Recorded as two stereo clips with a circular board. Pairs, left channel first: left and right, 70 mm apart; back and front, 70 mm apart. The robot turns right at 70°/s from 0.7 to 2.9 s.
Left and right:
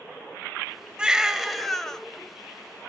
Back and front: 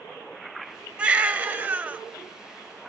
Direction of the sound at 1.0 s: 40° right.